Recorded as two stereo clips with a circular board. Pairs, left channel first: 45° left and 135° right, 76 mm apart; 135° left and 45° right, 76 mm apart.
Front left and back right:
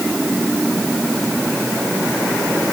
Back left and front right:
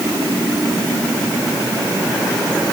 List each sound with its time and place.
Only background noise.